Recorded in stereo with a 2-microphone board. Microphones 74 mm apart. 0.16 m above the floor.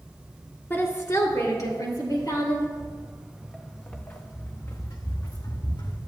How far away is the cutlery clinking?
I don't hear cutlery clinking.